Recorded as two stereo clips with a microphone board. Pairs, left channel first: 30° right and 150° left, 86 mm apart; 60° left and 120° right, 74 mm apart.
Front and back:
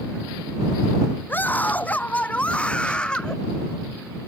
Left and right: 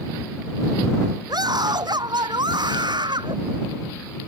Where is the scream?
95° right; by 3.4 s 110° right.